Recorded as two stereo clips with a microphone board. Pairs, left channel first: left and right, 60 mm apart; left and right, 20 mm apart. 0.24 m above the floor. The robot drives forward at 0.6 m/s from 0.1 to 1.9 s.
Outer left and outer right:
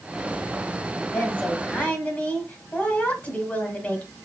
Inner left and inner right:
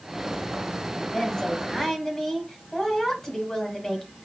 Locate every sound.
1.0 s a woman speaking: 25° left (ahead or behind), 1.4 m